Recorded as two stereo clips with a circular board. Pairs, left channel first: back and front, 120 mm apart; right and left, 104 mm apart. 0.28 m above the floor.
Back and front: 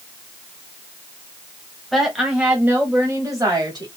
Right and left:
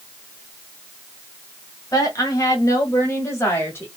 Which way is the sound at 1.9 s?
90° right.